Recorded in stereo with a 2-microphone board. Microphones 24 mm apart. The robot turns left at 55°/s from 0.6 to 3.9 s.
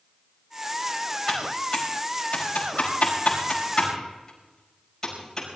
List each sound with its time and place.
1.3 s typing on a keyboard: 15° left (ahead or behind), 5.5 m; by 5.5 s 20° left (ahead or behind), 5.5 m